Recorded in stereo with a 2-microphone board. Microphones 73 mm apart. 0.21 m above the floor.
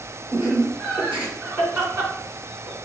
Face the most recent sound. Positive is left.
turn(degrees=-15)  # may be behind; listen again after turning